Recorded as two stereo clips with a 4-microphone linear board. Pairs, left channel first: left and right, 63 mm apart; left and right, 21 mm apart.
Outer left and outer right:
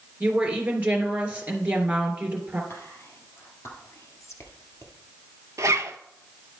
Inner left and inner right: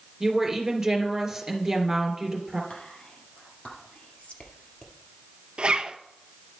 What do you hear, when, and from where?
0.2 s a woman speaking: 20° right (ahead or behind), 2.5 m
2.7 s whispering: 50° left (ahead or behind), 2.5 m
5.6 s a zipper: 60° right (ahead or behind), 0.6 m